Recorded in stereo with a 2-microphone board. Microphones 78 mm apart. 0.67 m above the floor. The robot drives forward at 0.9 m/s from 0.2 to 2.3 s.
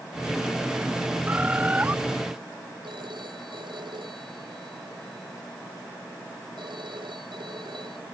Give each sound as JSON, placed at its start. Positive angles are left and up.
{"t": 1.3, "sound": "a bird", "side_deg": -25}
{"t": 2.8, "sound": "a phone ringing", "side_deg": -85}